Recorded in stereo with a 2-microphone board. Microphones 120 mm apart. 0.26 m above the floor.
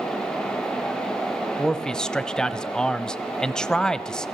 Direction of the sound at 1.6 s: 5° left (ahead or behind).